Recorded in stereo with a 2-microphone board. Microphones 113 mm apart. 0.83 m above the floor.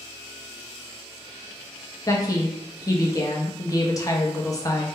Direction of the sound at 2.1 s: 30° left (ahead or behind).